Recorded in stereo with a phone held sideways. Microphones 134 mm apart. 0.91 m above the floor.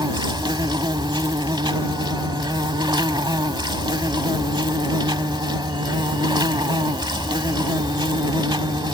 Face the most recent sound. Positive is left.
turn(degrees=-35)  # may be behind; listen again after turning